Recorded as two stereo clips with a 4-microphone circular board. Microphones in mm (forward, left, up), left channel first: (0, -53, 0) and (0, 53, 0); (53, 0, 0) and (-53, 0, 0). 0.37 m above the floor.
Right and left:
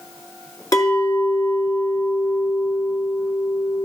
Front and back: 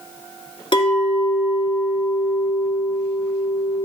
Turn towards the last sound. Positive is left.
turn(degrees=-35)